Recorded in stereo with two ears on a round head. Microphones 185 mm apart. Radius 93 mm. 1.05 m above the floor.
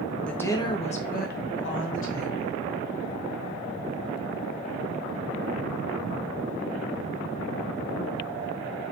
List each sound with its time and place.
0.3 s a woman speaking: 5° left (ahead or behind), 0.7 m; by 2.6 s 75° left (ahead or behind), 1.2 m